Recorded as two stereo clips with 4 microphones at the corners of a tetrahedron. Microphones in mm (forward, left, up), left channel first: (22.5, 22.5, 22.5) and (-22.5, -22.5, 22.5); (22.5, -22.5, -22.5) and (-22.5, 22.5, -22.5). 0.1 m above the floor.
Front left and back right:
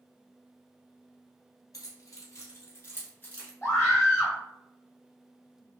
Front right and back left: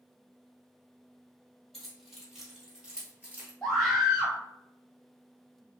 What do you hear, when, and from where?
1.7 s keys jangling: 40° left, 1.5 m; by 3.5 s 105° left, 0.9 m
3.6 s a scream: 45° left, 1.9 m